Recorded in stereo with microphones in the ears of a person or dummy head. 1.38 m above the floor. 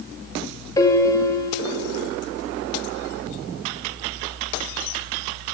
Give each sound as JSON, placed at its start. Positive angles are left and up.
{"t": 0.8, "sound": "a piano", "side_deg": 20, "distance_m": 4.5}